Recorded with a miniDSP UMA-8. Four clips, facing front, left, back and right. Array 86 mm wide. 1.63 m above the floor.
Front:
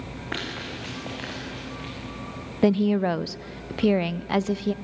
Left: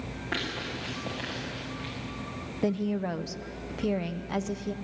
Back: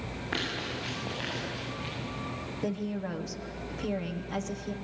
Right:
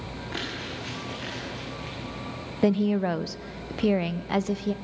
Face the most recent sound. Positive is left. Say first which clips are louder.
# right 6 dB, front 14 dB
turn(degrees=-25)